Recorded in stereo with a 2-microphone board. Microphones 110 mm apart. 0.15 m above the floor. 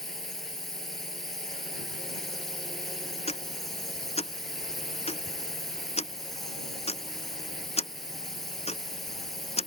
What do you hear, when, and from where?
0.0 s a drone: 5° left (ahead or behind)
3.3 s ticking: 75° left (ahead or behind)